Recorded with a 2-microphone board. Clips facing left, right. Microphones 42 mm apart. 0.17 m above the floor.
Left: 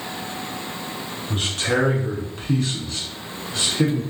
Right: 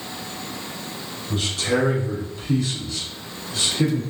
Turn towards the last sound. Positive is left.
turn(degrees=30)  # may be behind; listen again after turning